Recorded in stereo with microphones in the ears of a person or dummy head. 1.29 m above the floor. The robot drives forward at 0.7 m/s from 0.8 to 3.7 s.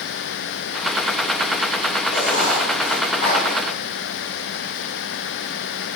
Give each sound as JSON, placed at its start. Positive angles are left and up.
{"t": 2.1, "sound": "writing", "side_deg": 40, "distance_m": 3.0}